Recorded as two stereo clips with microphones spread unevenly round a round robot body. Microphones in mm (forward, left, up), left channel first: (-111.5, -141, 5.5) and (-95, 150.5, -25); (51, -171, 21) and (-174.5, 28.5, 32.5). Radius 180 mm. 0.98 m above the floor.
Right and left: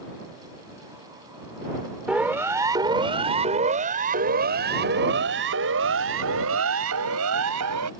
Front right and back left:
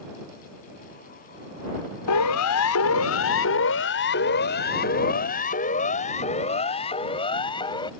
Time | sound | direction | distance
2.1 | a siren | straight ahead | ?